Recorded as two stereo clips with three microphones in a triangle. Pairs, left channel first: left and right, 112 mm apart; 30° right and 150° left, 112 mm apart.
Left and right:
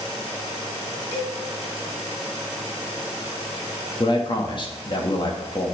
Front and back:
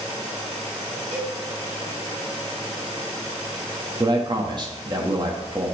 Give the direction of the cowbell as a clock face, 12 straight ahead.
8 o'clock.